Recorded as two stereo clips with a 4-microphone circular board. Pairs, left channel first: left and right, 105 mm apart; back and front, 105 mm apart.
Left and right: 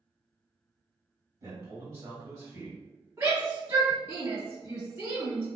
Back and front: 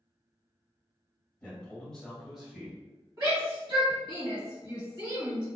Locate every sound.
1.4 s a man speaking: 115° right, 1.7 m; by 2.8 s 70° right, 1.5 m
3.2 s a shout: 35° right, 1.6 m